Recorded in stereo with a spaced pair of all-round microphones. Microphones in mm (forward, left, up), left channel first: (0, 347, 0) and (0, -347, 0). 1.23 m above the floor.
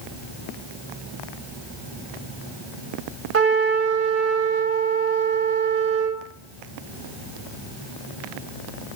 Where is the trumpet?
20° right (ahead or behind), 1.0 m.